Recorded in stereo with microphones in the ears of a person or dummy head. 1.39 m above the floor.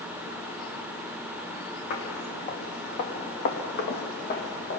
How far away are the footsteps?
About 4.5 m.